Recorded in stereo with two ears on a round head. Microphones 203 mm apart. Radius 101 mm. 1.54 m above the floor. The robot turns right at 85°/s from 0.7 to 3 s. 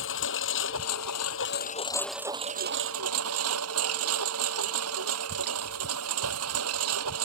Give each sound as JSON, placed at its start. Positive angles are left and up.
{"t": 0.0, "sound": "a lawn mower", "azimuth_deg": 60}